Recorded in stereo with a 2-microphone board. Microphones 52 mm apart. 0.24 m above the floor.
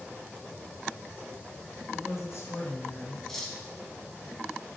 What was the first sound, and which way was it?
A woman speaking, 60° left (ahead or behind).